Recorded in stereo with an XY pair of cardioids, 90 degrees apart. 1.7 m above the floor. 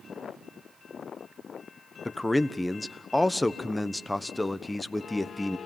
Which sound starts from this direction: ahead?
A man speaking, at 2.0 s.